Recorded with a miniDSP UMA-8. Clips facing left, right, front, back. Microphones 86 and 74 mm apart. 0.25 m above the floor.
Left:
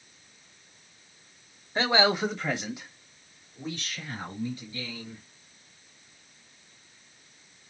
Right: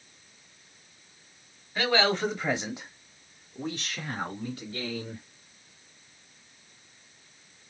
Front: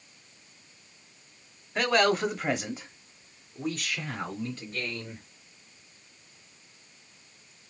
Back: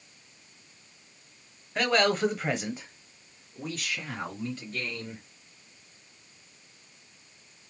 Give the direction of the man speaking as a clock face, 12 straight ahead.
9 o'clock.